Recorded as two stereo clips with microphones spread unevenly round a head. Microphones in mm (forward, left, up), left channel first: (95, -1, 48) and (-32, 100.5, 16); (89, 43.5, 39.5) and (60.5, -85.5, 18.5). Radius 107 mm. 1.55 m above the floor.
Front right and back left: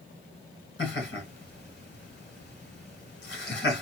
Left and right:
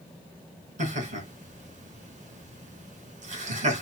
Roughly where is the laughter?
Right.